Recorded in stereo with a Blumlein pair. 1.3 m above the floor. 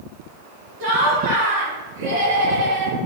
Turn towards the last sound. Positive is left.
turn(degrees=-50)